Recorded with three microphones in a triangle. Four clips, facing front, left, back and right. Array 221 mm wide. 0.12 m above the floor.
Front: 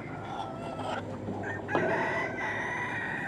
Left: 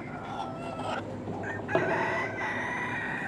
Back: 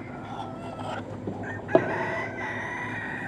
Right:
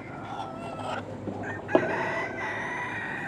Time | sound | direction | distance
1.3 | a drawer | 160° right | 1.1 m